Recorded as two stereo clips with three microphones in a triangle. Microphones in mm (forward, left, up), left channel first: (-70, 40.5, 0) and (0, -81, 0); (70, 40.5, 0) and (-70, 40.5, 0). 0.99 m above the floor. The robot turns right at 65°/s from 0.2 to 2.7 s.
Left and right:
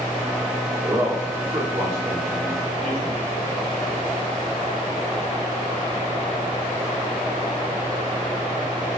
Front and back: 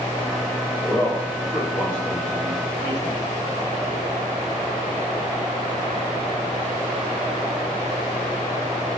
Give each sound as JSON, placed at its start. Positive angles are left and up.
{"t": 0.8, "sound": "a man speaking", "azimuth_deg": -85, "distance_m": 2.0}